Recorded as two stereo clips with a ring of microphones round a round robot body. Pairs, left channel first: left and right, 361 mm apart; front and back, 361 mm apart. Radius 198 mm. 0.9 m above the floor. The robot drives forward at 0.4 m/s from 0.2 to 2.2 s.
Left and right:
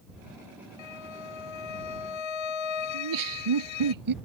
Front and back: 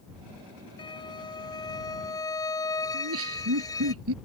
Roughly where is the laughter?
Behind right.